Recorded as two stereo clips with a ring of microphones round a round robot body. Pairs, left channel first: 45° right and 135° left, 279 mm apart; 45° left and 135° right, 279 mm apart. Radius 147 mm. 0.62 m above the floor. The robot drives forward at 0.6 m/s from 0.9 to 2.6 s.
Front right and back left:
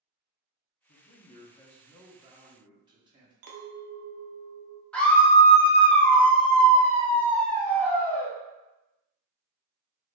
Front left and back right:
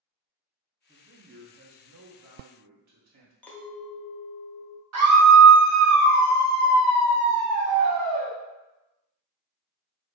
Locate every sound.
0.9 s a man speaking: 80° right, 0.7 m; by 3.3 s 150° right, 1.2 m
3.4 s a clink: 130° left, 0.6 m
4.9 s a scream: 130° right, 1.1 m